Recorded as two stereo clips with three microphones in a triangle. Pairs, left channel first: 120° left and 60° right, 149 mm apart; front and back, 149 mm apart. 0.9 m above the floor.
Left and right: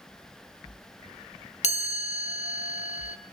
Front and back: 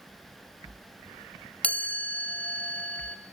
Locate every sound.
1.6 s a chime: 80° left, 1.7 m